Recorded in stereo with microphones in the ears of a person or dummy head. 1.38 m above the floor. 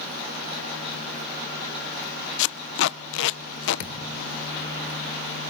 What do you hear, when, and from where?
2.4 s tape being pulled: 80° left, 0.6 m
3.8 s a thud: 50° left (ahead or behind), 1.4 m